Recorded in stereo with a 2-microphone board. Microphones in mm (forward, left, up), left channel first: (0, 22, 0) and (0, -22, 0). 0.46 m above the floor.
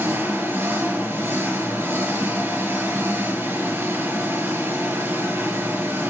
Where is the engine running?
85° right, 4 m.